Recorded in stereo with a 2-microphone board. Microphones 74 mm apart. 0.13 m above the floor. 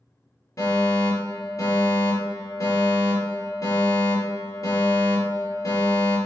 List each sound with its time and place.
0.6 s a fire alarm: 50° left (ahead or behind), 4 m